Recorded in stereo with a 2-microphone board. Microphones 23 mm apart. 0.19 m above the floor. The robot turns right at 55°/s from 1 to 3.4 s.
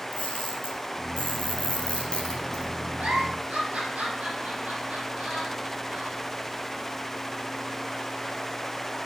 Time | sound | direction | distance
0.1 | a camera shutter | 70° left (ahead or behind) | 2.5 m
3.0 | a giggle | 65° right (ahead or behind) | 4 m